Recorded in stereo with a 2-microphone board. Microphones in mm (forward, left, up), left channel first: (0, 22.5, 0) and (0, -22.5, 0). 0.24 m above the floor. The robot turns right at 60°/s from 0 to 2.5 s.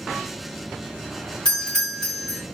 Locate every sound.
1.4 s a doorbell: 20° left (ahead or behind), 1.4 m; by 2.4 s 10° left (ahead or behind), 1.4 m